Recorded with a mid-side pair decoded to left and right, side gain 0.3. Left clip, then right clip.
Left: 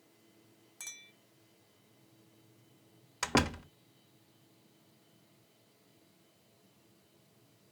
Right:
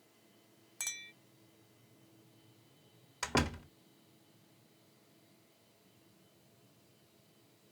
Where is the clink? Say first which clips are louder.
Right 6 dB; 70° right, 0.9 m.